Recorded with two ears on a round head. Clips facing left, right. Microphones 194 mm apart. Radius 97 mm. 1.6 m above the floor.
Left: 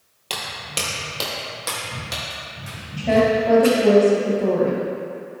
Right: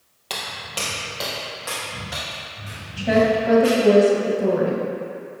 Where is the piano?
No piano in this recording.